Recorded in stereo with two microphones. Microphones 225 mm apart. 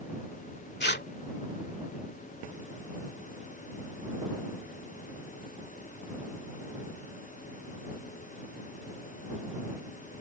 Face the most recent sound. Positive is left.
turn(degrees=50)  # may be behind; listen again after turning